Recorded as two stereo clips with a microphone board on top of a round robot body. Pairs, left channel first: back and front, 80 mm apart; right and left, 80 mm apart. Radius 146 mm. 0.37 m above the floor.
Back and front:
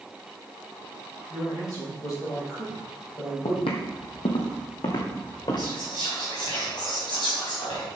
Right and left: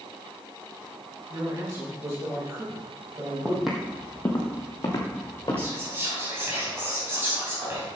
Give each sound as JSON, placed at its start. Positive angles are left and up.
{"t": 1.3, "sound": "a man speaking", "azimuth_deg": 140, "distance_m": 3.5}
{"t": 3.5, "sound": "footsteps", "azimuth_deg": 165, "distance_m": 0.9}
{"t": 5.6, "sound": "whispering", "azimuth_deg": 150, "distance_m": 3.5}